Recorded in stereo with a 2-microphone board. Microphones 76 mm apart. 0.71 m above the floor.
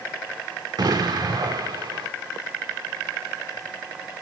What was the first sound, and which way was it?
An explosion, 60° right (ahead or behind).